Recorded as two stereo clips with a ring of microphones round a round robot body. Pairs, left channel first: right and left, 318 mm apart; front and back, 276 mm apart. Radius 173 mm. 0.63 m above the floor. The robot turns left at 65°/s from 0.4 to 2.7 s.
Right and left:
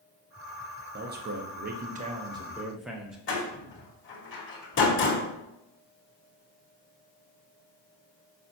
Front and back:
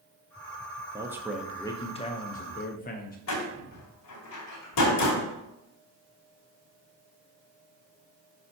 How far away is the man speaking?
About 0.8 m.